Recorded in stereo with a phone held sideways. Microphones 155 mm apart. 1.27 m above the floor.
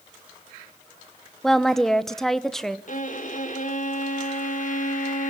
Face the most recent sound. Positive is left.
turn(degrees=60)  # may be behind; listen again after turning